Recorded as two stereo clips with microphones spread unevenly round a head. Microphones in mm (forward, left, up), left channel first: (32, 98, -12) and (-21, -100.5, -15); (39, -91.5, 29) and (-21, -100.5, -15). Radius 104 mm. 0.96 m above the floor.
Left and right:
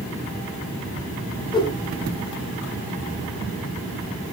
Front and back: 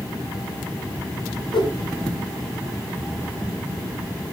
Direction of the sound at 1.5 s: 5° left.